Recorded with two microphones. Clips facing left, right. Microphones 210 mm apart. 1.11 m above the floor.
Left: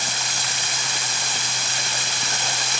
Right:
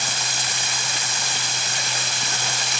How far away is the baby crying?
I don't hear a baby crying.